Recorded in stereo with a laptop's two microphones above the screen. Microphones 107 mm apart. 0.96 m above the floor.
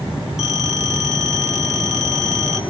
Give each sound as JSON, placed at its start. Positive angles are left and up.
{"t": 0.4, "sound": "a phone ringing", "side_deg": 85, "distance_m": 2.5}